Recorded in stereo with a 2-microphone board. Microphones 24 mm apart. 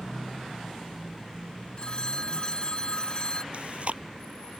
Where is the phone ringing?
35° left (ahead or behind).